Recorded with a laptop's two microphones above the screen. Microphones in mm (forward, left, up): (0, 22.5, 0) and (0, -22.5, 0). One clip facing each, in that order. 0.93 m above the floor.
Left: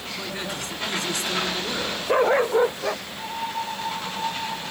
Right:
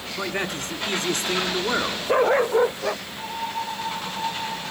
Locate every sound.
0.2 s a man speaking: 50° right (ahead or behind), 2.5 m